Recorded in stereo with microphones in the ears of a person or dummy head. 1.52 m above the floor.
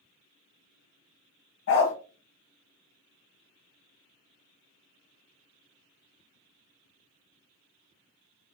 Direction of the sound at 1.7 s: 60° left (ahead or behind).